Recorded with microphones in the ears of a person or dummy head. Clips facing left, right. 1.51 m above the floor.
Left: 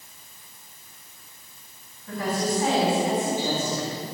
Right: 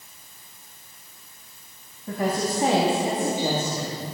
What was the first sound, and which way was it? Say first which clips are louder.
A woman speaking: right 1 dB; 35° right (ahead or behind).